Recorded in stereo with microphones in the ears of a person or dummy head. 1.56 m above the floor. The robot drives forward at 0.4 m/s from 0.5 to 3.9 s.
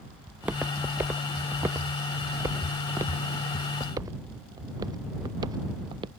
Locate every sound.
0.3 s footsteps: 5° right (ahead or behind); by 6.1 s 25° right (ahead or behind)